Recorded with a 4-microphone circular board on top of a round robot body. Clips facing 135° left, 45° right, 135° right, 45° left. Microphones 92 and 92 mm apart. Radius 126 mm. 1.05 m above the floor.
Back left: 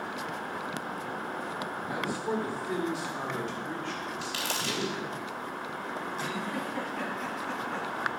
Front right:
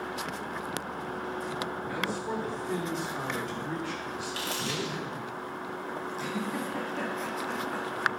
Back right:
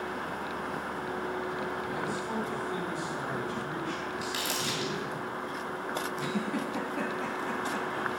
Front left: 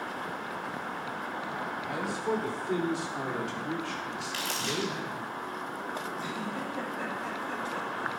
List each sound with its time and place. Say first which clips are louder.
1.9 s a man speaking: back left 4 dB, front left 2 dB; 60° left, 3.5 m; by 5.2 s 25° left, 5 m
4.2 s crumpling: even, back right 1 dB; 150° left, 3.5 m
6.2 s a giggle: front right 2 dB, back right 3 dB; 130° right, 1.9 m